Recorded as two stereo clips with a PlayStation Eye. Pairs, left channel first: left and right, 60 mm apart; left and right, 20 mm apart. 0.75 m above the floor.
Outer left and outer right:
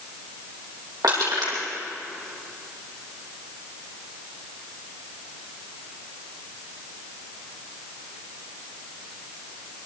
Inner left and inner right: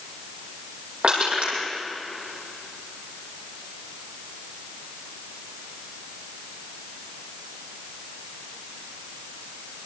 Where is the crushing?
85° right, 8.5 m.